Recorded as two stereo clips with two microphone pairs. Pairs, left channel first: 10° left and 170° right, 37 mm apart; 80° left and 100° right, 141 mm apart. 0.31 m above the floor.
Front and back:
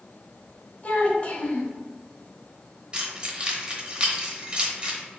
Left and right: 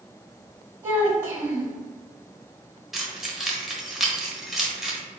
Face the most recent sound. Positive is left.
turn(degrees=175)